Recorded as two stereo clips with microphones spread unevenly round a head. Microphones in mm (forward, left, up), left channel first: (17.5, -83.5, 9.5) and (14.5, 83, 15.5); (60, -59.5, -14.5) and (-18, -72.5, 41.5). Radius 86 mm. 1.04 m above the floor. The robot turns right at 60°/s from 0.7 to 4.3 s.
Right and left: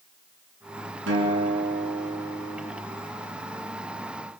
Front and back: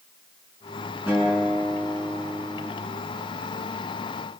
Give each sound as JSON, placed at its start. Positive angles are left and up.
{"t": 1.1, "sound": "a guitar", "azimuth_deg": 115, "distance_m": 6.0}